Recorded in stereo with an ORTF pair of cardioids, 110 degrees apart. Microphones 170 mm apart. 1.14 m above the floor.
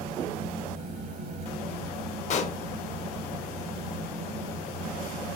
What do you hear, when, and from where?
0.0 s a fan: 65° right, 1.1 m
2.3 s a pop: 45° left, 0.5 m